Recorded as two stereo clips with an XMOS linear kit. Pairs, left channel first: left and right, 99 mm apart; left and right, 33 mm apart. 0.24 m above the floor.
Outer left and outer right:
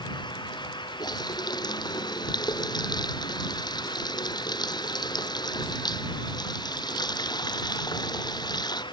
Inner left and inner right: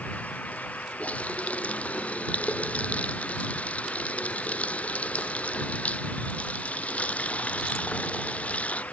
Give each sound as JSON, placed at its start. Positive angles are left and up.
{"t": 1.0, "sound": "a running tap", "side_deg": 45}